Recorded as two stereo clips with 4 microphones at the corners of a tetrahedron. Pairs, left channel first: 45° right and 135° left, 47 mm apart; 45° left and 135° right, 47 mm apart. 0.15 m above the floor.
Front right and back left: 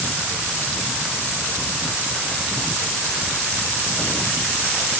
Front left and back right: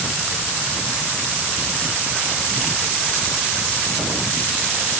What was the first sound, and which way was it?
Only background noise.